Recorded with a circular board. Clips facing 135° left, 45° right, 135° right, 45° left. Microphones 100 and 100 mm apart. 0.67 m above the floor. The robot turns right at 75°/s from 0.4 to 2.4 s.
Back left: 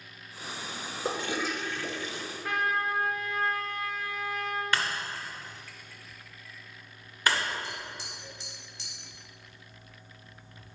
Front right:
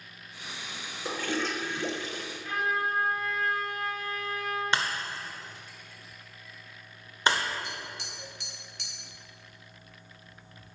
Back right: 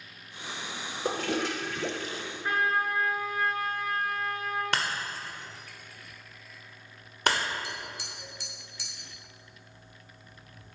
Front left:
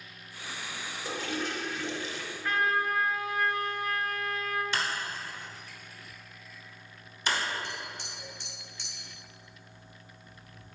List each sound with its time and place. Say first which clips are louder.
1.1 s a toilet flushing: even, back right 5 dB; 170° right, 0.9 m; by 2.2 s 80° right, 0.9 m
2.4 s a trumpet: back left 1 dB, even; 155° left, 2.5 m
4.7 s breaking glass: front right 1 dB, back right 1 dB; 110° right, 1.6 m
7.6 s tapping: even, even; 55° right, 3 m